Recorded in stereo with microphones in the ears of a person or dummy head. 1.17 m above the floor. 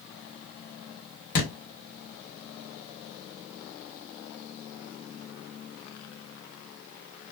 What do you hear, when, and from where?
1.4 s a thud: 55° left (ahead or behind), 1.2 m